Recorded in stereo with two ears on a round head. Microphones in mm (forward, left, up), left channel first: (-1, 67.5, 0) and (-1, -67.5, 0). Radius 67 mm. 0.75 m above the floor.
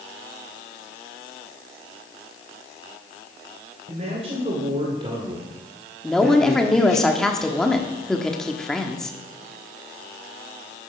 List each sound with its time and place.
3.9 s a man speaking: 45° right (ahead or behind), 3 m; by 7.0 s 55° left (ahead or behind), 1.0 m
6.0 s a woman speaking: 5° left (ahead or behind), 1.1 m